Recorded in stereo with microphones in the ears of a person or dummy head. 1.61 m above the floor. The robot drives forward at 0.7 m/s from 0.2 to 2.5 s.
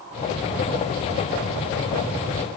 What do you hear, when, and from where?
Only background noise.